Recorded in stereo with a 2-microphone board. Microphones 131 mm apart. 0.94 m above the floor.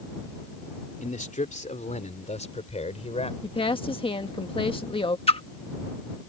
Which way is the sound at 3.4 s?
45° left (ahead or behind).